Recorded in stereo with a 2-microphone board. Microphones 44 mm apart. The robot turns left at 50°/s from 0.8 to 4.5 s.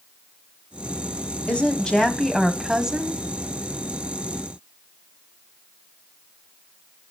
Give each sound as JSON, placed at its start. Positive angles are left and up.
{"t": 1.5, "sound": "a woman speaking", "azimuth_deg": 45, "distance_m": 1.7}